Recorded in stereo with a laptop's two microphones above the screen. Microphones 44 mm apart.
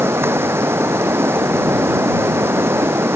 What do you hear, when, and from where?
0.0 s running water: 65° right (ahead or behind)